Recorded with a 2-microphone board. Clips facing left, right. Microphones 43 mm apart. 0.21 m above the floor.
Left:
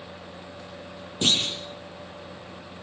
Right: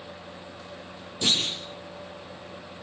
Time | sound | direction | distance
1.2 | a clunk | 45° left (ahead or behind) | 5 m